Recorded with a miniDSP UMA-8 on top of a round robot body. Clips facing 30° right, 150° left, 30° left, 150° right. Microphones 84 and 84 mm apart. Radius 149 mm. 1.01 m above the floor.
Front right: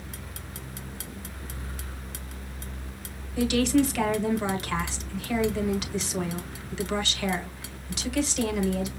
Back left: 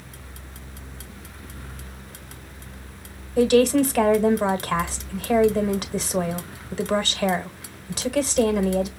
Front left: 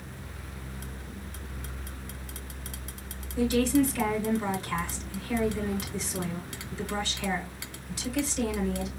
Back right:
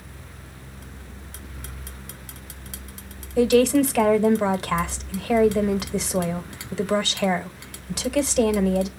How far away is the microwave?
I don't hear a microwave.